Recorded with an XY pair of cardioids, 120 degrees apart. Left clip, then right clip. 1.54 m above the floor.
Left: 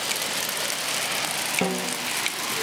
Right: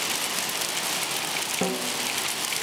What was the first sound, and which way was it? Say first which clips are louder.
A snare drum: left 1 dB; 10° left.